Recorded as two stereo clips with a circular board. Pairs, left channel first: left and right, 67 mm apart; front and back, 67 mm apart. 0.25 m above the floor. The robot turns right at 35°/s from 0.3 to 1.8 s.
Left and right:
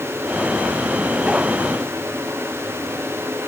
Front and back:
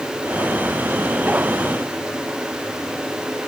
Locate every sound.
Only background noise.